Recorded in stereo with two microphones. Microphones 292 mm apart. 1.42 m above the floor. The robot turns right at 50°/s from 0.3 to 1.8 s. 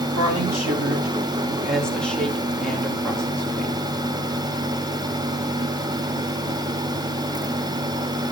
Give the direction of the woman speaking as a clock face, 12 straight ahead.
2 o'clock.